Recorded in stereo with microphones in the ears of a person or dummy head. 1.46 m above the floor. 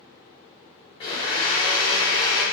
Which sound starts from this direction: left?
A blender, at 1.0 s.